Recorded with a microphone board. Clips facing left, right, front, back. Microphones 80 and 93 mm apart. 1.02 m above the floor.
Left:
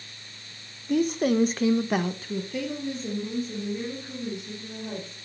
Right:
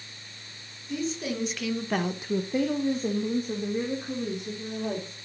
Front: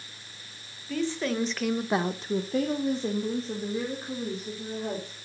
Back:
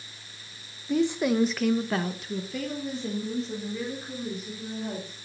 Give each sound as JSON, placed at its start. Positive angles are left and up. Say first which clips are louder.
{"t": 0.9, "sound": "a woman speaking", "louder": "left 8 dB, back 5 dB", "azimuth_deg": 110, "distance_m": 1.2}